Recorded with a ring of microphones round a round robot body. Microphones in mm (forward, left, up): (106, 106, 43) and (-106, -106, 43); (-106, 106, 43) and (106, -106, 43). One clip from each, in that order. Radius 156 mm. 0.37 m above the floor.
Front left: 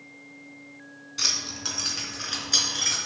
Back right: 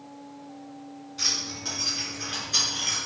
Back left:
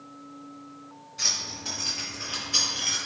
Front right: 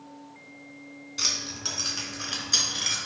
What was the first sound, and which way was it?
Keys jangling, 10° right.